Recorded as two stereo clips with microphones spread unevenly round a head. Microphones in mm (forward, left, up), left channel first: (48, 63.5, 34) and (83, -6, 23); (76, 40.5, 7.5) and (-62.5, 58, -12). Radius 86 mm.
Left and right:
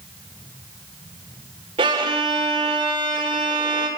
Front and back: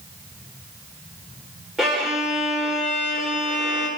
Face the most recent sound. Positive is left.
turn(degrees=-95)